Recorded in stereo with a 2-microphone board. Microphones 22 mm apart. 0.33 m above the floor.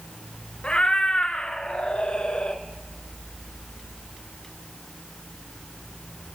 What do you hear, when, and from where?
0.6 s a cat meowing: 50° left (ahead or behind), 0.8 m